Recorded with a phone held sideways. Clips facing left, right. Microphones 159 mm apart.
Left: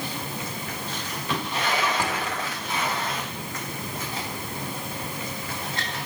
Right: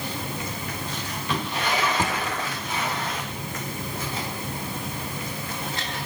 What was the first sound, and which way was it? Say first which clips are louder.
A drawer: right 1 dB; 20° right (ahead or behind).